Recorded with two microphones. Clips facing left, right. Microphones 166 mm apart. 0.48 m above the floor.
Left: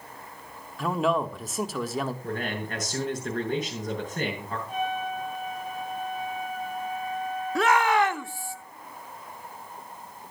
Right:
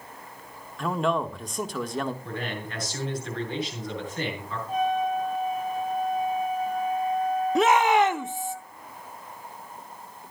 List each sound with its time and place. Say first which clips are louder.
0.8 s a man speaking: left 1 dB; 5° left (ahead or behind), 1.1 m
2.2 s a man speaking: left 2 dB; 45° left (ahead or behind), 7 m
4.7 s a trumpet: right 6 dB; 35° right (ahead or behind), 5 m
7.5 s a shout: right 2 dB; 20° right (ahead or behind), 0.7 m